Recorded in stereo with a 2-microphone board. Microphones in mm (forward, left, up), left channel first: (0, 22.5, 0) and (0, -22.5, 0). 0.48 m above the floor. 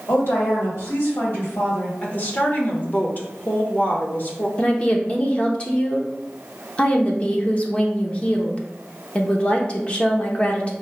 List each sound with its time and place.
0.1 s a woman speaking: 70° left (ahead or behind), 2 m
2.0 s a woman speaking: 45° left (ahead or behind), 1.0 m
4.6 s a woman speaking: 25° left (ahead or behind), 0.8 m